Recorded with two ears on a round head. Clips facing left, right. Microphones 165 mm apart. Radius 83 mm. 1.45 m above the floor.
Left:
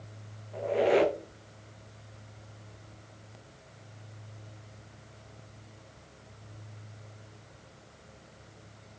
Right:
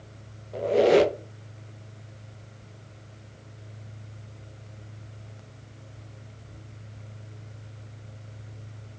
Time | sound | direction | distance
0.5 | a squeak | 55° right (ahead or behind) | 0.8 m